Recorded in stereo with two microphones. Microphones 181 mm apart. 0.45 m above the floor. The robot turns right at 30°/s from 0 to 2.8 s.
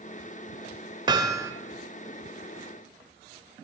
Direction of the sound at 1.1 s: 25° right (ahead or behind).